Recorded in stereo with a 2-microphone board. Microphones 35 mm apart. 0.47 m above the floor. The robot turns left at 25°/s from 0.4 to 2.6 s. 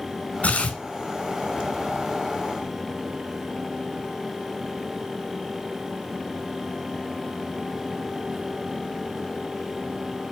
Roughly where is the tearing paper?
Left.